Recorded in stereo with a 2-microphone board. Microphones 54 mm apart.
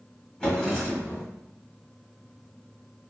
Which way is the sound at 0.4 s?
15° left (ahead or behind).